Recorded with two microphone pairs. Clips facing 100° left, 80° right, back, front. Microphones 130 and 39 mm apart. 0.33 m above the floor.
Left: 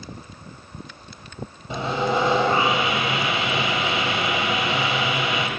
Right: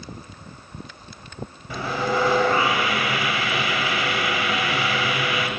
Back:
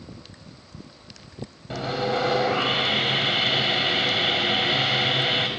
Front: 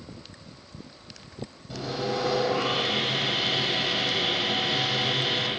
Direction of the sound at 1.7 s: 155° left.